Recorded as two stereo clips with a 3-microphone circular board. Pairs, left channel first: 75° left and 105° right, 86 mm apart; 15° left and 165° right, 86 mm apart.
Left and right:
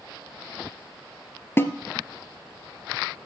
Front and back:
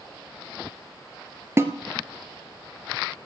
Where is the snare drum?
135° left, 1.3 m.